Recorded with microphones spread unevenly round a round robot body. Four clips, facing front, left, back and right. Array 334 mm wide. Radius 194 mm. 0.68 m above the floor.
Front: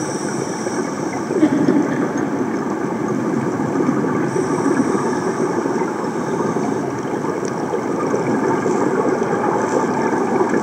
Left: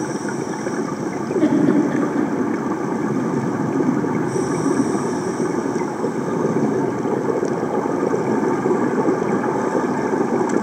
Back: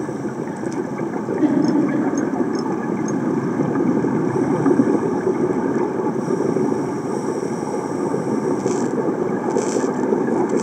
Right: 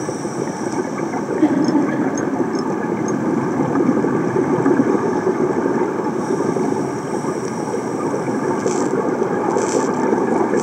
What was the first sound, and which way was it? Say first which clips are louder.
A giggle: even, front 2 dB; 35° left.